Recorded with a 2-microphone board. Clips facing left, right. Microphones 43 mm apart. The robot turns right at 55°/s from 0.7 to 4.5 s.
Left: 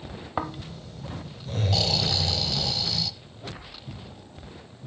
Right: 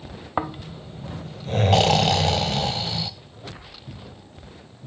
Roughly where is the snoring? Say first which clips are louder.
Right 4 dB; behind.